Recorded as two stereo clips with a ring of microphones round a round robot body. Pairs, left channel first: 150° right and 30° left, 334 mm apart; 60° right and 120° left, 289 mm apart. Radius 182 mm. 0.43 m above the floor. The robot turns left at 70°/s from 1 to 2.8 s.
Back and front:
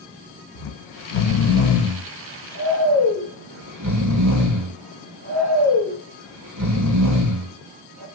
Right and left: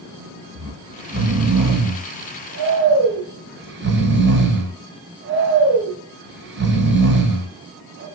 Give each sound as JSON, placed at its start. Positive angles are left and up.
{"t": 0.6, "sound": "snoring", "azimuth_deg": -165, "distance_m": 2.0}